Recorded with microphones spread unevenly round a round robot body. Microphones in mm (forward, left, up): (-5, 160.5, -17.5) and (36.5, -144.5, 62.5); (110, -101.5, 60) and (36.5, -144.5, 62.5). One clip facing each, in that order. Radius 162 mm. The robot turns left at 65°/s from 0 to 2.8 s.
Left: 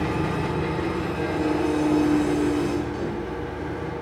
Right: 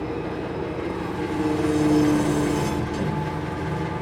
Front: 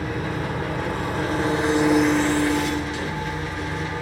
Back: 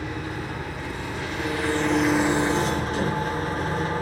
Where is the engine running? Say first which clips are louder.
Left 2 dB, front 4 dB; 70° left, 1.7 m; by 4.0 s 110° right, 1.7 m.